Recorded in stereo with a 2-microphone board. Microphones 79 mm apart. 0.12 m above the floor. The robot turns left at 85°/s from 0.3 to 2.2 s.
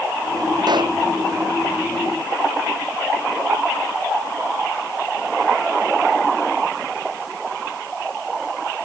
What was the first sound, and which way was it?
A pop, 60° right (ahead or behind).